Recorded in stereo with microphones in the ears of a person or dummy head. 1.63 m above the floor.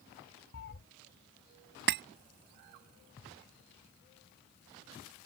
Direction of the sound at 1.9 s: 55° right (ahead or behind).